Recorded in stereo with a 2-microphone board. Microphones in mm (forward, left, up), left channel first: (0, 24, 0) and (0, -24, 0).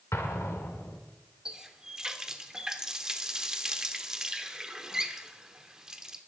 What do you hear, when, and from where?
0.1 s an explosion: 75° left (ahead or behind), 2 m
1.4 s a running tap: 10° right (ahead or behind), 1.0 m